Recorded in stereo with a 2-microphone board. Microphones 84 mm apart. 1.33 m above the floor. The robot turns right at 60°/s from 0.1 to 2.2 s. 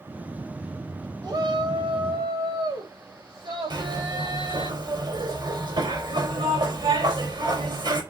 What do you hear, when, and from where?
1.2 s a shout: 135° right, 3.5 m; by 4.7 s 75° right, 3.5 m
3.7 s a zipper: 65° right (ahead or behind), 4 m